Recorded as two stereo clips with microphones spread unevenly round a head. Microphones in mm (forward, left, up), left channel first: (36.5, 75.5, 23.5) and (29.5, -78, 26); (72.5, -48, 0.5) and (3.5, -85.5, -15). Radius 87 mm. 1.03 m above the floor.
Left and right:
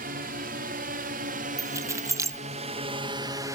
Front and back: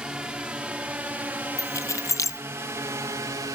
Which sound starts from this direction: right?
A drone, at 0.0 s.